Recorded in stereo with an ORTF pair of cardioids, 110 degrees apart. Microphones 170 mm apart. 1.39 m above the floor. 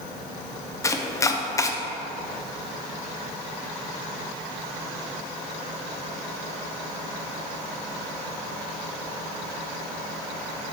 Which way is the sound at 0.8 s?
20° left.